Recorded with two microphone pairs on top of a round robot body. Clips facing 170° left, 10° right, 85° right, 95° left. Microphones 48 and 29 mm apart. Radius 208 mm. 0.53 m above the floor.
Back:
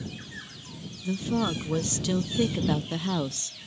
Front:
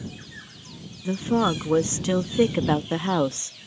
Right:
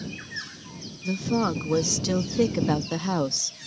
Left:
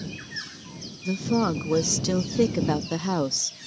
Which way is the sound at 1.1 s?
5° right.